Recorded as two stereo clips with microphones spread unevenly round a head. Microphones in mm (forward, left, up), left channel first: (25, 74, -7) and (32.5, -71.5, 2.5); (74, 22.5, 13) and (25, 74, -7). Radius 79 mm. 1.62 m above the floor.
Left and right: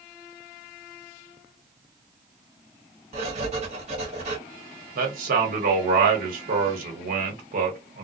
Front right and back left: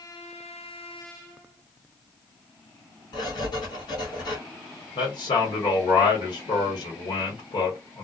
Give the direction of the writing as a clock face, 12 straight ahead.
1 o'clock.